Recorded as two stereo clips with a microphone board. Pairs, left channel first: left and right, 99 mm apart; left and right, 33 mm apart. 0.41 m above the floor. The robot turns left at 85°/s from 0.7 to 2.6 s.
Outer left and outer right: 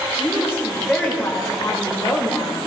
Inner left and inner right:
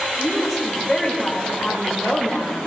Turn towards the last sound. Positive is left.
turn(degrees=20)  # may be behind; listen again after turning